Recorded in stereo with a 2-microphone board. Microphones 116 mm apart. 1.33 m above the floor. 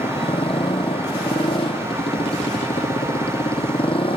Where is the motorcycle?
50° left (ahead or behind).